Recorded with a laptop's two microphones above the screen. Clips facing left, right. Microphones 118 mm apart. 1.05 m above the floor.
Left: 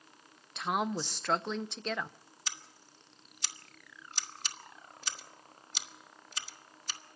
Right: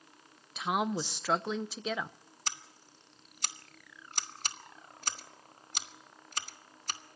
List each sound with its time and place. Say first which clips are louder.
0.6 s a woman speaking: right 1 dB; 5° right (ahead or behind), 0.7 m
2.5 s scissors: right 4 dB; 55° right (ahead or behind), 1.3 m